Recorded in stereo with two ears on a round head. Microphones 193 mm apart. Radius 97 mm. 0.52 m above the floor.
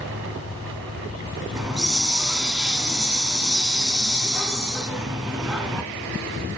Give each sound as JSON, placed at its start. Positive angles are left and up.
{"t": 1.6, "sound": "a hiss", "side_deg": -5, "distance_m": 1.9}